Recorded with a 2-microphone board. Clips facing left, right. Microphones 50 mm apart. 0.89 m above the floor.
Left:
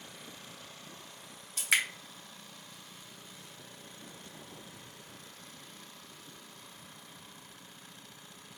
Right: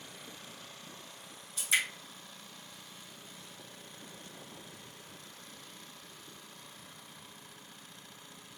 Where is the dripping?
75° left (ahead or behind), 1.1 m.